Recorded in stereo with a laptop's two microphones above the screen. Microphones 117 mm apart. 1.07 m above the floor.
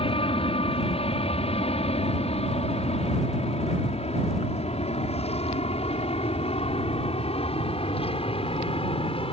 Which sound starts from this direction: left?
An aircraft, at 0.0 s.